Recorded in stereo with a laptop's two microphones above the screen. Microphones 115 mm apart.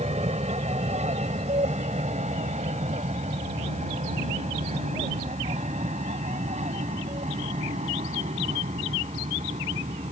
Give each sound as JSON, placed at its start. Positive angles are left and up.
{"t": 0.0, "sound": "an aircraft", "side_deg": -70}